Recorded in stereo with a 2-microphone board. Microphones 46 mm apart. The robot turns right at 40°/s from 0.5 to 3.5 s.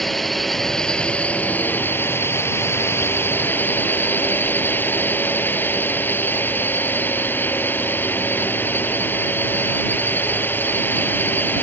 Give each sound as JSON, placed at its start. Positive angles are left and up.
{"t": 0.0, "sound": "a drone", "azimuth_deg": 5}